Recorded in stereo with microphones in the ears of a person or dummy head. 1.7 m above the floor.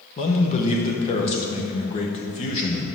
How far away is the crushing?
No crushing in this recording.